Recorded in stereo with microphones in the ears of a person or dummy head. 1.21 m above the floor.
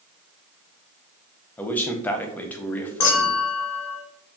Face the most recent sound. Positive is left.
turn(degrees=75)  # may be behind; listen again after turning